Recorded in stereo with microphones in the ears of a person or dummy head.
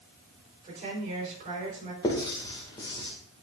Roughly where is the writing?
Left.